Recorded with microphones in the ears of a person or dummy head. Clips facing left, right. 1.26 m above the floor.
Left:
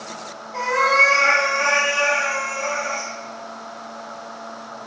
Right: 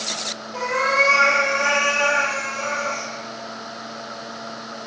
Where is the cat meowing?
30° right (ahead or behind), 1.9 m; by 3.1 s 55° right (ahead or behind), 1.2 m.